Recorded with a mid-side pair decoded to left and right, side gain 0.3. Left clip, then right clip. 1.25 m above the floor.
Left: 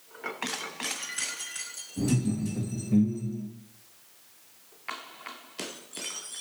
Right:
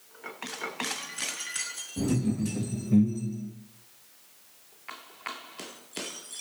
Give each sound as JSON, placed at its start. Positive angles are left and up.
{"t": 2.0, "sound": "laughter", "azimuth_deg": -55, "distance_m": 1.7}